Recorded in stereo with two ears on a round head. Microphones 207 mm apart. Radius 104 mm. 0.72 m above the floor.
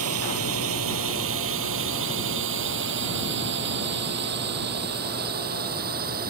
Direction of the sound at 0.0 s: 70° right (ahead or behind).